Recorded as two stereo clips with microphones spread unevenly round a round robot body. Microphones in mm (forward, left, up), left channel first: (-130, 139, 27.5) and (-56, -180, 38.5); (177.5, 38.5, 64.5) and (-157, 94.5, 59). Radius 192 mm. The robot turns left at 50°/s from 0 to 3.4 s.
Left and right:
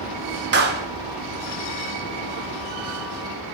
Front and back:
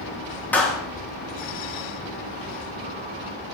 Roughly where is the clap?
Right.